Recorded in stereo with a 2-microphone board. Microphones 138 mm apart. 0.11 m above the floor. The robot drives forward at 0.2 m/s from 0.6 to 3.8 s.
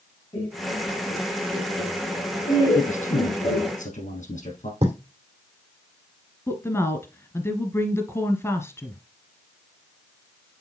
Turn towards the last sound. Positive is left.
turn(degrees=20)  # may be behind; listen again after turning